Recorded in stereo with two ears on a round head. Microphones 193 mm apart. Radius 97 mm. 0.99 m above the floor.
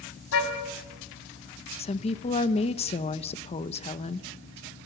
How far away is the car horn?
About 3.5 m.